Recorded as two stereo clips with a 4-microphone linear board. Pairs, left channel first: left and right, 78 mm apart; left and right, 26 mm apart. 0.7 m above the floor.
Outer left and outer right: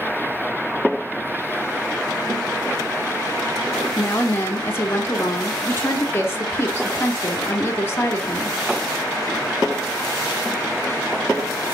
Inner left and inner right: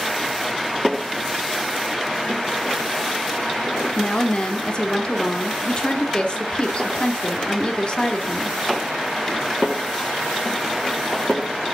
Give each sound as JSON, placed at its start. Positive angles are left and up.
{"t": 4.0, "sound": "a woman speaking", "side_deg": 30, "distance_m": 1.1}